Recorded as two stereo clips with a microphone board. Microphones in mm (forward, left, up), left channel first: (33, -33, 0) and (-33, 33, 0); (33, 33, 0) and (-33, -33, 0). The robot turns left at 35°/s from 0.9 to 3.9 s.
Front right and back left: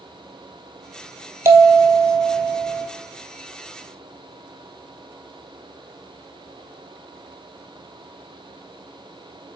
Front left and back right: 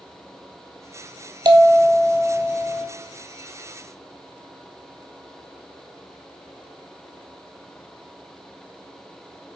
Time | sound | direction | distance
1.4 | a bell | 165° right | 0.7 m